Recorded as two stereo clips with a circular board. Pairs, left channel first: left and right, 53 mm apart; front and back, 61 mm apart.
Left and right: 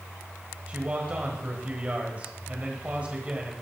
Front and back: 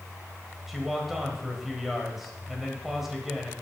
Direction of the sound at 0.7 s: 100° right.